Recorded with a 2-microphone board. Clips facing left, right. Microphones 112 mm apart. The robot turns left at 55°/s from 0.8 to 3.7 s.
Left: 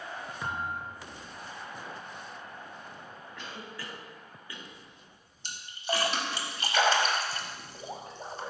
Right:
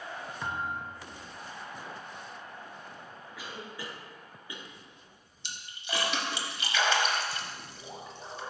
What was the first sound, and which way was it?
A thud, 5° left (ahead or behind).